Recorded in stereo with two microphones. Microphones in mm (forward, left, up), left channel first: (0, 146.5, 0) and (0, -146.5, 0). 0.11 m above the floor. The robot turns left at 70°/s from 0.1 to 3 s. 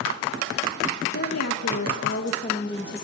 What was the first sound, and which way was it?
A woman speaking, 130° left.